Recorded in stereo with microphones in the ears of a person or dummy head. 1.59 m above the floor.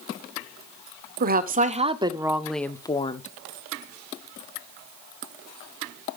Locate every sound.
1.2 s a woman speaking: 45° right (ahead or behind), 0.9 m; by 3.3 s 40° left (ahead or behind), 0.7 m